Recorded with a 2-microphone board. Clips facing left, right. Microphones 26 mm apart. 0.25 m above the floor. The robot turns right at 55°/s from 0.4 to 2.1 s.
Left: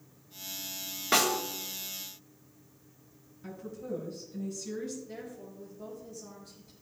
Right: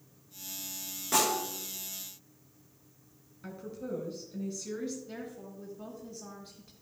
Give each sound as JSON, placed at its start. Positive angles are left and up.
{"t": 1.1, "sound": "a snare drum", "side_deg": 40, "distance_m": 4.5}
{"t": 3.4, "sound": "a woman speaking", "side_deg": -45, "distance_m": 5.0}
{"t": 5.1, "sound": "a woman speaking", "side_deg": -55, "distance_m": 2.5}